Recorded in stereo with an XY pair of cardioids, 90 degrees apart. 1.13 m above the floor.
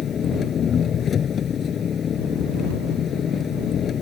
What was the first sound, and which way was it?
An engine running, 55° left.